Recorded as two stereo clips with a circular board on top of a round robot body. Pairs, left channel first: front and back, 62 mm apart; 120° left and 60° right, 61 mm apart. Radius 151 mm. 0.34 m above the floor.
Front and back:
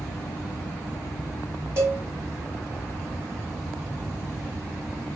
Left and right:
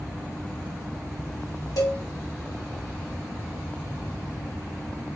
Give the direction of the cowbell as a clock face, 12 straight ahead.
7 o'clock.